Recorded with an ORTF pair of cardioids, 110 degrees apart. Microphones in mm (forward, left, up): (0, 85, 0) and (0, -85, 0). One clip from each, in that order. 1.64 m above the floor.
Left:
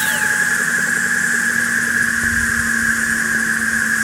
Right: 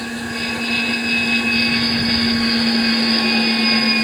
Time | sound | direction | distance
0.0 | an insect | 70° left | 0.9 m